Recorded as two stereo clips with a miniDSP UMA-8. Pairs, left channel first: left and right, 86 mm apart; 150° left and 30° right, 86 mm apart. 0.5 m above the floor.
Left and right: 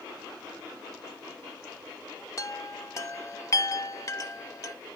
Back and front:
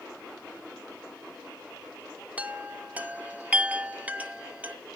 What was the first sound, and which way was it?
A chime, 40° left.